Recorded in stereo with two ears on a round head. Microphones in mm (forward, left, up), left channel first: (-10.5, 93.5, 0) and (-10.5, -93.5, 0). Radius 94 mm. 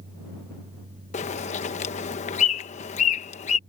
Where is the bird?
35° left (ahead or behind).